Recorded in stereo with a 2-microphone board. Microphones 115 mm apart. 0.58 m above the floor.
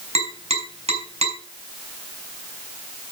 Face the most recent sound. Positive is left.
turn(degrees=-65)  # may be behind; listen again after turning